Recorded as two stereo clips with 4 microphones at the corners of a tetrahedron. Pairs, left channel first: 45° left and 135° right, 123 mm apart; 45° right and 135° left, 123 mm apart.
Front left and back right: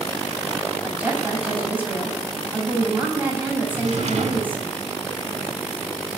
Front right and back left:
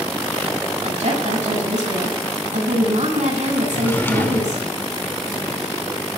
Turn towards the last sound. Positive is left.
turn(degrees=-115)